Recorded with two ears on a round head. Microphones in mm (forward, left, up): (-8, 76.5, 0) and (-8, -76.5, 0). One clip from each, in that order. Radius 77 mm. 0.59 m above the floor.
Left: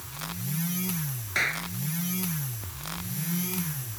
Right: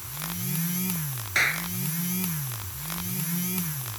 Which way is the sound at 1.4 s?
25° right (ahead or behind).